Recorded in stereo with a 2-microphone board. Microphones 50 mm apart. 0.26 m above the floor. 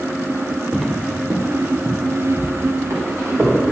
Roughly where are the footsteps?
Centre.